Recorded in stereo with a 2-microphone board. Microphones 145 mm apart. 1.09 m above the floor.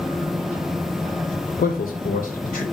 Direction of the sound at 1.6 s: 75° left (ahead or behind).